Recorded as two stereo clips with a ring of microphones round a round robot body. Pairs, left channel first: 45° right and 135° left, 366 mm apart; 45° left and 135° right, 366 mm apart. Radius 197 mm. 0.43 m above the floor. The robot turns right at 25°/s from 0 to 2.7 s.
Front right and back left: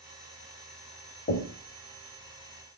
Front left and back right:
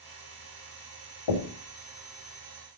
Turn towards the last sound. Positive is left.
turn(degrees=55)